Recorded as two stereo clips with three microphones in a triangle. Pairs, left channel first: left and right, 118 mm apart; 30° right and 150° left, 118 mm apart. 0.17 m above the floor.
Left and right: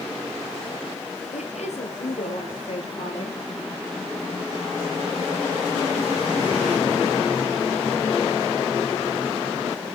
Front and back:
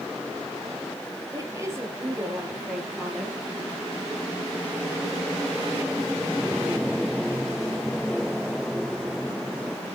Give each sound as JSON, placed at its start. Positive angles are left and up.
{"t": 1.3, "sound": "a woman speaking", "azimuth_deg": 90, "distance_m": 3.0}